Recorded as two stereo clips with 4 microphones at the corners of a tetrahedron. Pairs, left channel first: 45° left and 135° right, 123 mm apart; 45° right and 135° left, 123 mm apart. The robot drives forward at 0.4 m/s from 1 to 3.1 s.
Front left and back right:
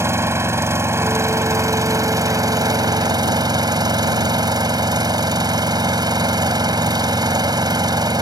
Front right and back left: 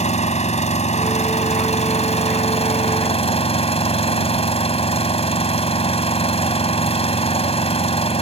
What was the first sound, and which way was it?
An engine running, 65° right.